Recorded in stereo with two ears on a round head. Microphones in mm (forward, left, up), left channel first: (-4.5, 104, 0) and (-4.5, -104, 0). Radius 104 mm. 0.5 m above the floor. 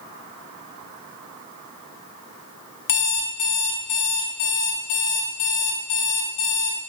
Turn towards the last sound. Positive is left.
turn(degrees=55)  # may be behind; listen again after turning